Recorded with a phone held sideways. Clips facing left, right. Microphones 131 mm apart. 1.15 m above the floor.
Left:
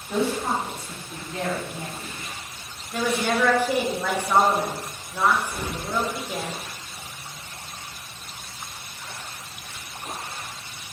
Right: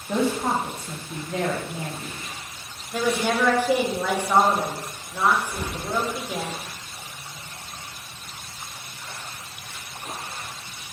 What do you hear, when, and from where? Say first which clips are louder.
0.1 s a woman speaking: right 1 dB; 85° right, 0.8 m
2.9 s a woman speaking: right 1 dB; 10° right (ahead or behind), 0.6 m
5.5 s an explosion: right 1 dB; 55° left (ahead or behind), 1.0 m